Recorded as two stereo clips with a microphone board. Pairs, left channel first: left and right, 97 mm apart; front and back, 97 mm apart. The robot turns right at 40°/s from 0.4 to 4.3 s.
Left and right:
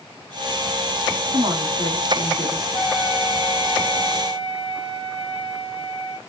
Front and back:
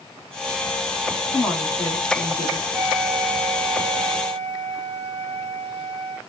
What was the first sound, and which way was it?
A woman speaking, 85° right.